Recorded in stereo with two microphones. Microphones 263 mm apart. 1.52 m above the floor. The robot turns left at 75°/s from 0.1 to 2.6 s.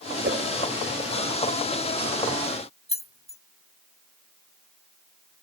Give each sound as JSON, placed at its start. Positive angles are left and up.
{"t": 0.2, "sound": "a whoosh", "side_deg": -45}
{"t": 2.9, "sound": "keys jangling", "side_deg": 25}